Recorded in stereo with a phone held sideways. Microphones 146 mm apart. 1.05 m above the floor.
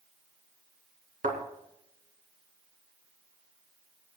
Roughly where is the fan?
No fan in this recording.